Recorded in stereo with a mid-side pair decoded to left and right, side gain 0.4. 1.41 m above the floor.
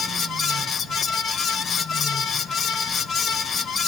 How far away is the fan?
About 0.8 m.